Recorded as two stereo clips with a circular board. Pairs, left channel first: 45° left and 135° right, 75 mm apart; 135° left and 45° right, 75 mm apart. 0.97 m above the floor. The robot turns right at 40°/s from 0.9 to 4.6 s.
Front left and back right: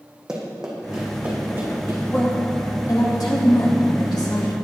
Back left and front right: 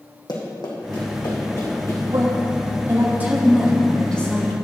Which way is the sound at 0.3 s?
145° left.